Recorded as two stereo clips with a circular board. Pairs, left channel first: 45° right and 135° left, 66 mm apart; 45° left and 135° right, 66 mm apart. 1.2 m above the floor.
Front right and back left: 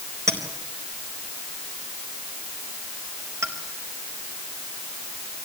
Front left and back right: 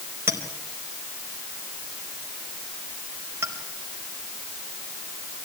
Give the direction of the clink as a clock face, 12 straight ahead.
6 o'clock.